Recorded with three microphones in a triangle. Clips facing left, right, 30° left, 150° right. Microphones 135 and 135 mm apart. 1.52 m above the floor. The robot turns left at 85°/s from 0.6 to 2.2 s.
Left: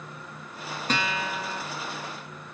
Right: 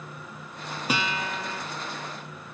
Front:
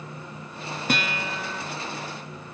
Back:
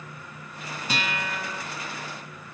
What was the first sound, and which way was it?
A guitar, 10° right.